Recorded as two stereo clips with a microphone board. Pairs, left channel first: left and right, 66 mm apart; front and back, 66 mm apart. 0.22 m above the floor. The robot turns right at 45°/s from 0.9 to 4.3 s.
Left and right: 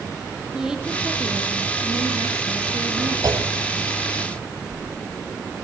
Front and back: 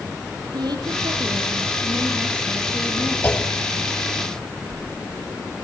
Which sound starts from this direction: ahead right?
A clunk, at 3.2 s.